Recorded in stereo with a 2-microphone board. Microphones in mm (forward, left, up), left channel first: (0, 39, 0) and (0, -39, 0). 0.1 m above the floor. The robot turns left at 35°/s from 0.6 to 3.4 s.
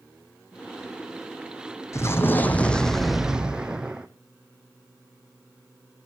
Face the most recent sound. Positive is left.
turn(degrees=-10)